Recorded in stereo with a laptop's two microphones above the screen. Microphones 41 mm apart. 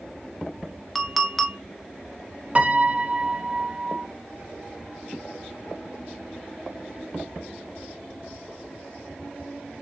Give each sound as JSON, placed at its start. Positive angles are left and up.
{"t": 0.9, "sound": "a clink", "side_deg": 0, "distance_m": 0.5}
{"t": 2.5, "sound": "a piano", "side_deg": -30, "distance_m": 0.5}